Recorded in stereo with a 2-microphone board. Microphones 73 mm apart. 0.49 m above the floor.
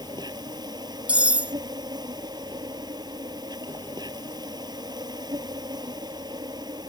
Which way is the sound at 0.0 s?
75° right (ahead or behind).